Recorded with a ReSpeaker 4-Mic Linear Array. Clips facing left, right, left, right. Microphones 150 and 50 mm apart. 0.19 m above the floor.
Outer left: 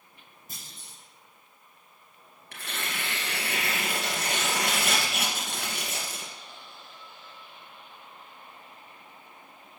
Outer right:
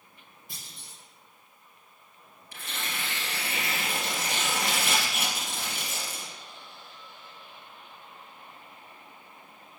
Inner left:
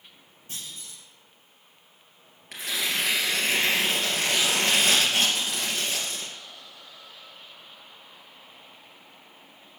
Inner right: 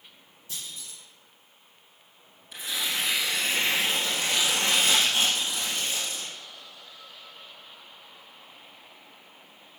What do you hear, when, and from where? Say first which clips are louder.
0.5 s a clunk: outer left 1 dB, even; 45° left (ahead or behind), 7 m
2.5 s tearing paper: outer left 1 dB, inner left 2 dB; 70° left (ahead or behind), 3 m